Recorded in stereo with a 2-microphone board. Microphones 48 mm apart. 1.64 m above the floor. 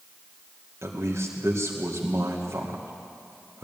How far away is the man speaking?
About 2 m.